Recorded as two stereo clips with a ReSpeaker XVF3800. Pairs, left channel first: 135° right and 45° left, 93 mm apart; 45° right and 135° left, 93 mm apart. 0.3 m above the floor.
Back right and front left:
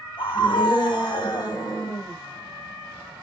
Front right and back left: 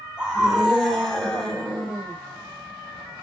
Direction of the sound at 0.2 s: 145° right.